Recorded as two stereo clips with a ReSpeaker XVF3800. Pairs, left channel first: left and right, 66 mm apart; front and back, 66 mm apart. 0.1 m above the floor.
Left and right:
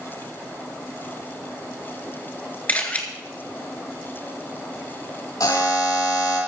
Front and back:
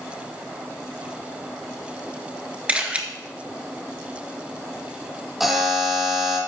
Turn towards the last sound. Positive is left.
turn(degrees=95)